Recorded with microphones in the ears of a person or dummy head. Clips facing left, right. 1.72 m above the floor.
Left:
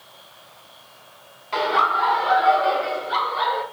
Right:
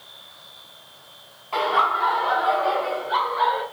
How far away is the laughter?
About 1.3 m.